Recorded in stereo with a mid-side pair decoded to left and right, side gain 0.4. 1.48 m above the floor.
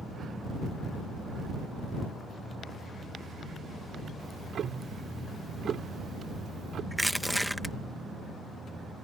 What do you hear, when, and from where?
4.2 s ticking: 60° right
6.9 s crushing: 5° right